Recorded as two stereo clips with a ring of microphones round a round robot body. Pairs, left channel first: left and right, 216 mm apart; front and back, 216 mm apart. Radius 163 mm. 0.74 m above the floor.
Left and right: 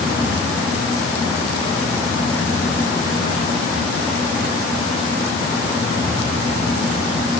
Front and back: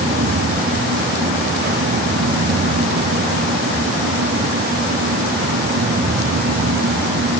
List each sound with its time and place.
Only background noise.